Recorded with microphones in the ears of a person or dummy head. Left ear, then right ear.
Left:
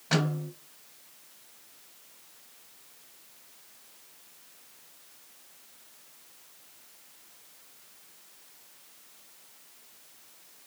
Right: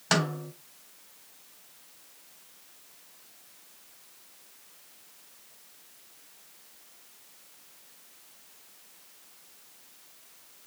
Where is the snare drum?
75° right (ahead or behind), 4.5 m.